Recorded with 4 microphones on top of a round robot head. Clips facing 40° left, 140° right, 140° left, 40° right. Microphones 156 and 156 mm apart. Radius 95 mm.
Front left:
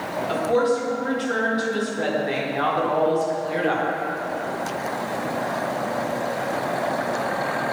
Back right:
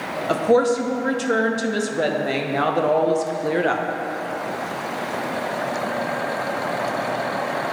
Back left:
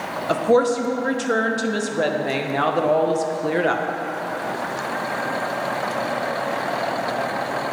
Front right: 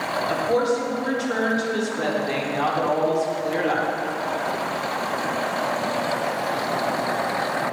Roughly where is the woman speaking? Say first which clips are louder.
Back right 4 dB, back left 5 dB; behind.